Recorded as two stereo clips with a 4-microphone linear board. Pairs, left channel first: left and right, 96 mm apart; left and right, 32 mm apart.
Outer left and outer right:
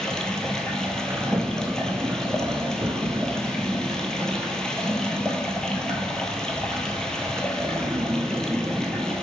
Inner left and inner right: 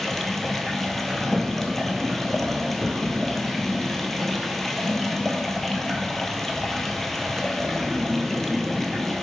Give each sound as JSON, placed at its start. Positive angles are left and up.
{"t": 0.0, "sound": "running water", "side_deg": 5, "distance_m": 0.9}
{"t": 1.1, "sound": "a sliding door", "side_deg": -30, "distance_m": 0.9}